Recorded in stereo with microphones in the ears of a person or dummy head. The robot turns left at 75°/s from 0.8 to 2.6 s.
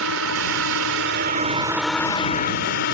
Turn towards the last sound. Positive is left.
turn(degrees=125)